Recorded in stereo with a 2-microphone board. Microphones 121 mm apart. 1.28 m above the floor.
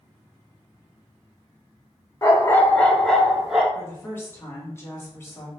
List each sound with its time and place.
2.2 s a dog barking: 25° left (ahead or behind), 0.8 m; by 3.6 s 10° right (ahead or behind), 1.0 m
3.8 s a woman speaking: 20° left (ahead or behind), 1.4 m